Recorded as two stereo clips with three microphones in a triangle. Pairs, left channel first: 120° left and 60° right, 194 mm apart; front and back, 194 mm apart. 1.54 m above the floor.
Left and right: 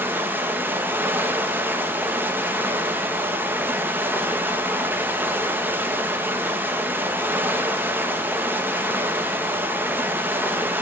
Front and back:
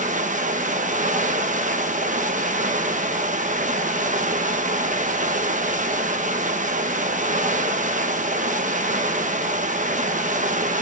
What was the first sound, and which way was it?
Running water, 135° right.